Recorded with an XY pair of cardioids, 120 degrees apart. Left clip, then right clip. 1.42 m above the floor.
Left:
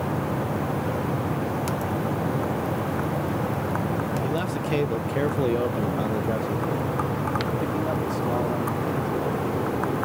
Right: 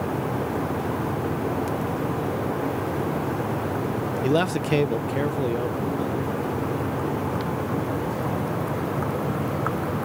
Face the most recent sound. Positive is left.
turn(degrees=60)